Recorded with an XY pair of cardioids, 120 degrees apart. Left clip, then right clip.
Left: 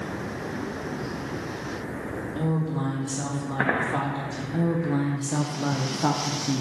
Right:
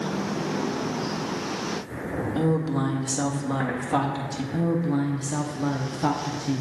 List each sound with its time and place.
2.4 s a woman speaking: 40° right, 1.7 m
4.5 s a woman speaking: 5° left, 0.7 m